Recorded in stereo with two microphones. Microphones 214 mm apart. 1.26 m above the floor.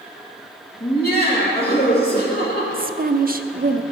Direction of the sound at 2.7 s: 45° right (ahead or behind).